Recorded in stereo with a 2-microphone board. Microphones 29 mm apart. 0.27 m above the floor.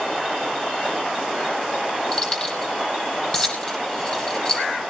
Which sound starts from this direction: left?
Keys jangling, at 2.1 s.